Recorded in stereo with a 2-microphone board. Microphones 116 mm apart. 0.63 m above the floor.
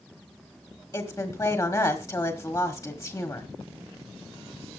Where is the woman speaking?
35° left (ahead or behind), 1.6 m.